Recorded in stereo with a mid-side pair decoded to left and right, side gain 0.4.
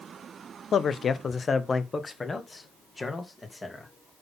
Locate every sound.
0.7 s a man speaking: 60° left, 0.9 m; by 3.9 s 25° left, 3 m